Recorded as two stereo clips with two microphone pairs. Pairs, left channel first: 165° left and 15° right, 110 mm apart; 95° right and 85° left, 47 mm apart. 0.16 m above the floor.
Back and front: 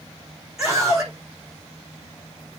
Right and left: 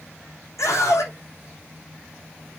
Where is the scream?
95° right, 8 m.